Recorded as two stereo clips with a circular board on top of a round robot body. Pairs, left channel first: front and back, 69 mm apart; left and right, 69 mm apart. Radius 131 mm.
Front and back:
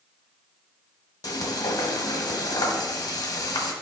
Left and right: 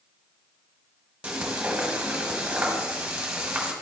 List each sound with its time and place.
1.2 s frying: 15° right, 1.3 m